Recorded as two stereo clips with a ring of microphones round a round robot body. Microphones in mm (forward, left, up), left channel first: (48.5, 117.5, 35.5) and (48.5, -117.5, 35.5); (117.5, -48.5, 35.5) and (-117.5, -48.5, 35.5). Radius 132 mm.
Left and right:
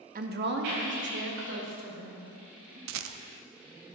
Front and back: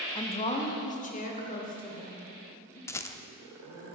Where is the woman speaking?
60° right, 0.8 m; by 2.8 s 55° right, 4 m.